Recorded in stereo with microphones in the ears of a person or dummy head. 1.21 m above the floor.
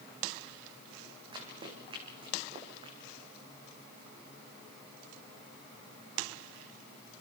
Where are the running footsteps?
30° right (ahead or behind), 4.5 m.